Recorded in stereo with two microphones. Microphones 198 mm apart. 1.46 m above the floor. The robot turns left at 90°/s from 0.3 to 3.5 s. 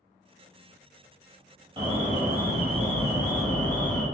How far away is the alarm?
About 0.9 m.